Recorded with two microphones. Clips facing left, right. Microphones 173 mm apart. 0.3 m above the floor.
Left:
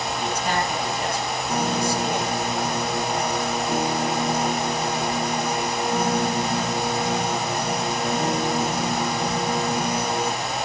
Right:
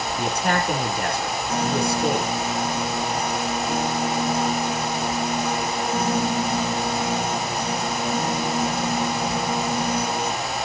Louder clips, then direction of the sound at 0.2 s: Right 3 dB; 60° right (ahead or behind).